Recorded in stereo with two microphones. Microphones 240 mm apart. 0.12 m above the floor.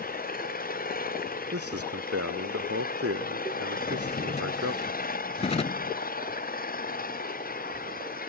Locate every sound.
0.0 s an engine running: 35° left (ahead or behind)
1.5 s a man speaking: 75° right (ahead or behind)
3.7 s a drawer: 25° left (ahead or behind)